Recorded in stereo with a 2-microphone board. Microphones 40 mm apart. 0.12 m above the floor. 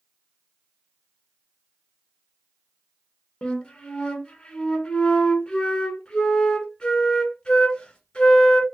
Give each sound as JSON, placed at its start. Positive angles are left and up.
{"t": 3.4, "sound": "a flute", "side_deg": 25, "distance_m": 0.9}